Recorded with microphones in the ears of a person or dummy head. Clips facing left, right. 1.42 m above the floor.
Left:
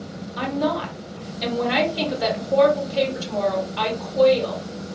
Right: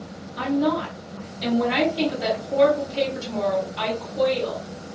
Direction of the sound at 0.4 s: 70° left (ahead or behind).